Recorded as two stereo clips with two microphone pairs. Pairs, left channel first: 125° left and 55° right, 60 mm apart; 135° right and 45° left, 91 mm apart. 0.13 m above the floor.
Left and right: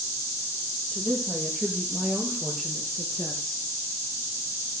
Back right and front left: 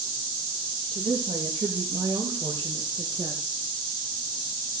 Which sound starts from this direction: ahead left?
A woman speaking, at 0.9 s.